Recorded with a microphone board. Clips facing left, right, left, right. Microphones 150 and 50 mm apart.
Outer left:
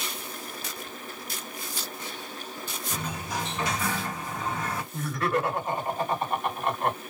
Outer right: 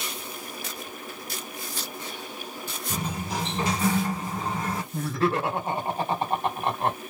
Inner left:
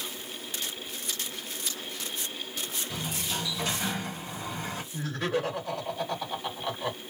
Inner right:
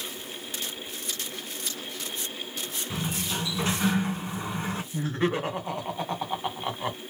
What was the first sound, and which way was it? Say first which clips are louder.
A sliding door: outer right 3 dB, inner right 4 dB; 35° right (ahead or behind).